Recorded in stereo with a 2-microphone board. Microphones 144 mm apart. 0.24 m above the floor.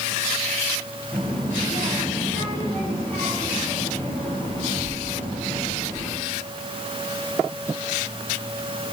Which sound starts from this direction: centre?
A child speaking, at 1.1 s.